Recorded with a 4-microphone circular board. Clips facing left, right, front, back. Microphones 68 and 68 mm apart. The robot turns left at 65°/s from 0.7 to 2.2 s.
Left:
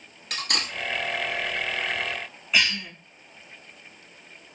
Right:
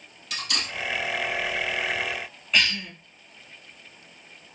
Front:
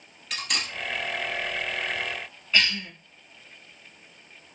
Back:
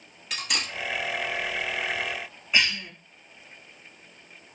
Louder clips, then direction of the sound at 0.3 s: Left 1 dB, even; 90° left.